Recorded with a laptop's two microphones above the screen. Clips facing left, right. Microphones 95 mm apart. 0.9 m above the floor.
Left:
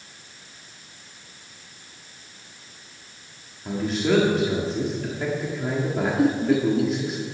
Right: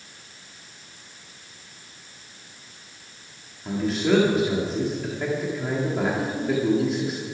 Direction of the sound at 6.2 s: 70° left (ahead or behind).